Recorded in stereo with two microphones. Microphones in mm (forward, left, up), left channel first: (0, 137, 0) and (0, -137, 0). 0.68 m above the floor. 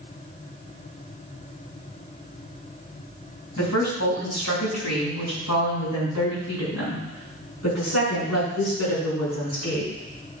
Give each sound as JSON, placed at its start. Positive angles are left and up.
{"t": 3.6, "sound": "a woman speaking", "side_deg": 80, "distance_m": 4.0}